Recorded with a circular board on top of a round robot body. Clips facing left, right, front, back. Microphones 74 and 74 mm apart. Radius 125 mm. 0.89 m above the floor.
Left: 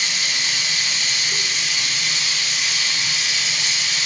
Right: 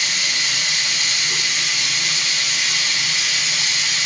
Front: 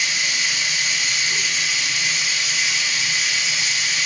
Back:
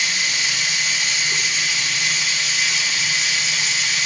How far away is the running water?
About 3.5 m.